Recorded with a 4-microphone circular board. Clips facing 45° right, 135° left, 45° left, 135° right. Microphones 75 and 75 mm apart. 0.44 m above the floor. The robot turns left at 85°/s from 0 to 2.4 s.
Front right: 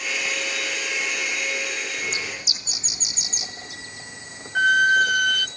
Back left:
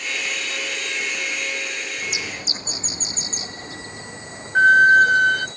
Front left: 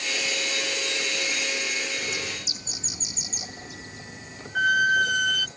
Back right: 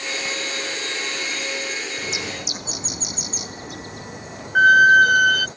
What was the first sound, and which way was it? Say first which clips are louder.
A bird: even, back right 3 dB; 130° right.